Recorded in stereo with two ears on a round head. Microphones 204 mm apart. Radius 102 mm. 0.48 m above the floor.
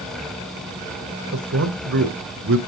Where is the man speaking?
60° right (ahead or behind), 1.6 m.